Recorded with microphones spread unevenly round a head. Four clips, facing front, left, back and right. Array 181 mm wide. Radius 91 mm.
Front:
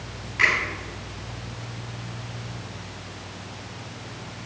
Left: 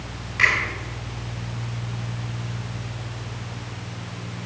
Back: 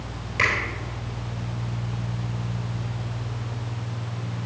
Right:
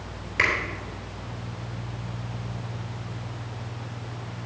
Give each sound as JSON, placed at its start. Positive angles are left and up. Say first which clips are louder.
{"t": 0.4, "sound": "a finger snap", "louder": "left 3 dB, front 1 dB", "azimuth_deg": -125, "distance_m": 3.0}